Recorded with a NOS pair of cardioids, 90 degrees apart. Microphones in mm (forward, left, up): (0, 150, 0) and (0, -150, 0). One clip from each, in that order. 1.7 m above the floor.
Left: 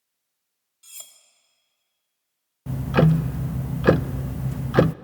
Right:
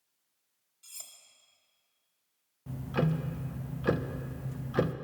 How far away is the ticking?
About 0.6 m.